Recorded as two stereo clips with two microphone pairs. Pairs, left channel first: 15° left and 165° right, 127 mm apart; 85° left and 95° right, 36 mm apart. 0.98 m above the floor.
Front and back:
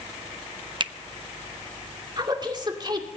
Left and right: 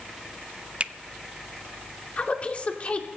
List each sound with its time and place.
0.8 s a finger snap: 135° right, 0.6 m
2.2 s a woman speaking: 140° left, 2.5 m